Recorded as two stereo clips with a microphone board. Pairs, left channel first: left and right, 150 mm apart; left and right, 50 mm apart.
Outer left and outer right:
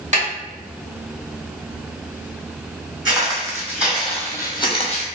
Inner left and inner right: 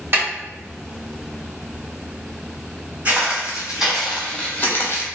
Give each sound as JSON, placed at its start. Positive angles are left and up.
{"t": 0.1, "sound": "a snare drum", "side_deg": -50, "distance_m": 1.4}
{"t": 3.0, "sound": "footsteps", "side_deg": -25, "distance_m": 1.3}